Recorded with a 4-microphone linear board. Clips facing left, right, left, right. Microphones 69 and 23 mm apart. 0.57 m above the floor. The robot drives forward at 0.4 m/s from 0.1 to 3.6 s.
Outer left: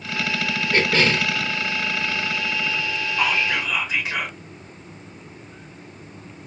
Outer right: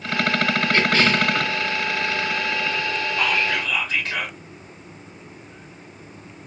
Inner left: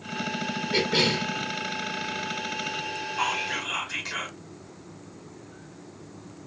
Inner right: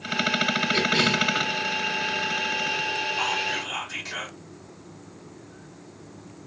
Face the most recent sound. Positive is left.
turn(degrees=10)  # may be behind; listen again after turning